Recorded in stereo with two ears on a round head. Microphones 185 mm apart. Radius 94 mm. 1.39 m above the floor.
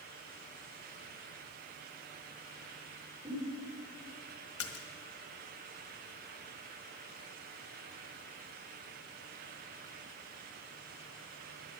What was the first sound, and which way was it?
A giggle, 25° right (ahead or behind).